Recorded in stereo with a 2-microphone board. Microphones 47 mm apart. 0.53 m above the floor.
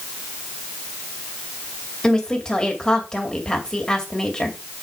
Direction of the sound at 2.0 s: 20° left (ahead or behind).